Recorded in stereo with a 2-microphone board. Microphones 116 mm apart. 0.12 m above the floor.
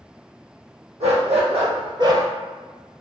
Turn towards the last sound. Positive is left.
turn(degrees=-25)  # may be behind; listen again after turning